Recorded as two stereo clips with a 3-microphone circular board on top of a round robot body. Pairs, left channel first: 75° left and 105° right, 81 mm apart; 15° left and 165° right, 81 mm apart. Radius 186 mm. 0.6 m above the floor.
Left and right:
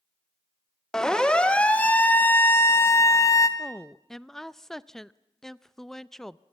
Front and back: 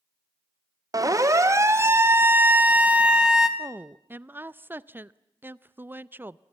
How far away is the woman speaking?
About 0.8 m.